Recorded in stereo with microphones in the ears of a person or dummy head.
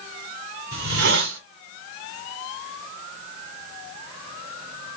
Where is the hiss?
75° right (ahead or behind), 5 m.